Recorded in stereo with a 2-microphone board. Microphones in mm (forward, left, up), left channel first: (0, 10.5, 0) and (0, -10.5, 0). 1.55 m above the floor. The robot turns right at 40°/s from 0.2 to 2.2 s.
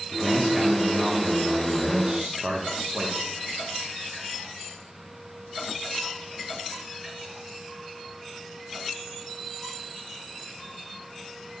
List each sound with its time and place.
0.1 s a man speaking: straight behind, 0.7 m; by 3.1 s 100° right, 0.7 m